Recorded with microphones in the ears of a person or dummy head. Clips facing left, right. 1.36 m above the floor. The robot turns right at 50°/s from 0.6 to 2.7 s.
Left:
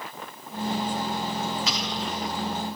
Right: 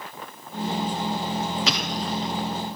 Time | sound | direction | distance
1.7 | an explosion | 50° right | 1.0 m